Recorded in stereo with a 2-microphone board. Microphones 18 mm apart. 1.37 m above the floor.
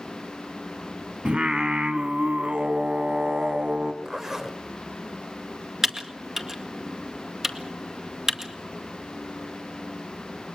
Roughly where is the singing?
Right.